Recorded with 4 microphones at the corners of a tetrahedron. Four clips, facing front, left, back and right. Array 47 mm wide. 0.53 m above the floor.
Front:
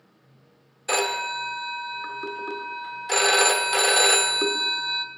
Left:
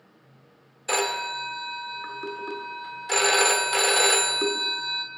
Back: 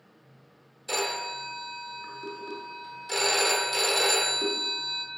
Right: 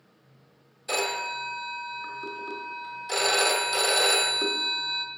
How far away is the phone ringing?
About 1.0 m.